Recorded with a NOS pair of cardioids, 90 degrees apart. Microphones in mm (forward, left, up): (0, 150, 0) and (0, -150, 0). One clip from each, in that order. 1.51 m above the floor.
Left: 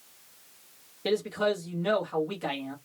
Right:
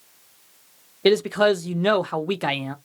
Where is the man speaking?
60° right, 0.9 m.